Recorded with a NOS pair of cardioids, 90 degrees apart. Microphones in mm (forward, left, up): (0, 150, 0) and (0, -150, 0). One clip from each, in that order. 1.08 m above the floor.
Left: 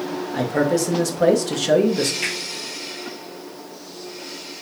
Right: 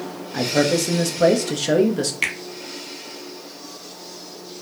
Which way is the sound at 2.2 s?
40° right.